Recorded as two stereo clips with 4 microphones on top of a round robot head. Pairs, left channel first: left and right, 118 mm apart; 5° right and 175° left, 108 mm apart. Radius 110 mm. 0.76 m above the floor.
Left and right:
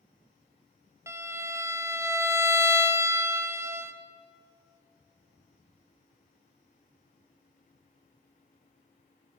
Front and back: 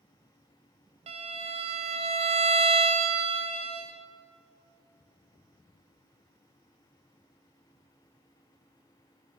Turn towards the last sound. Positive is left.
turn(degrees=-160)